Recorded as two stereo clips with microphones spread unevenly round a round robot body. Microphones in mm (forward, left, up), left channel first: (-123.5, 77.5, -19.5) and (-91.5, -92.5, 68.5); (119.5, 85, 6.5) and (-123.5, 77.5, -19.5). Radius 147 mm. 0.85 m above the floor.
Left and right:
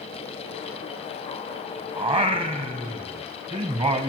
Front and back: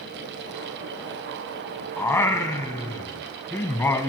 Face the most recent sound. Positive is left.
turn(degrees=-70)